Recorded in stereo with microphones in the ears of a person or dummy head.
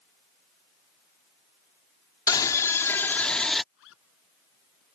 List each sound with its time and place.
2.3 s a scream: 20° left (ahead or behind); by 3.6 s 5° left (ahead or behind)
3.7 s a zipper: 75° left (ahead or behind)